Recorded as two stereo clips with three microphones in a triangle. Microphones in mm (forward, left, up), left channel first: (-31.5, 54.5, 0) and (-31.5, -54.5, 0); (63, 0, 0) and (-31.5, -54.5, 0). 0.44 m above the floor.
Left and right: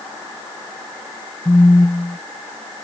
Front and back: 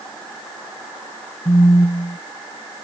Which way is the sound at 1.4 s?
25° left.